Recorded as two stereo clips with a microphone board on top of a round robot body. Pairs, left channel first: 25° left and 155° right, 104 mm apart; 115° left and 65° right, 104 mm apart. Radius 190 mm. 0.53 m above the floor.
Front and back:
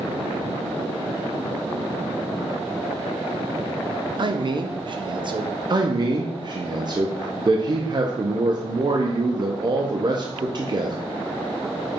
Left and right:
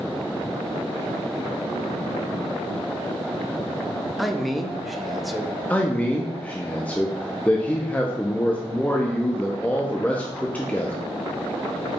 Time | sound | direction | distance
4.2 | a man speaking | 155° right | 0.8 m
5.7 | a man speaking | 175° right | 0.8 m